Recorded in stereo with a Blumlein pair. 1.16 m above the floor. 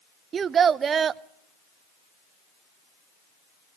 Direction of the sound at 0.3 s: 25° right.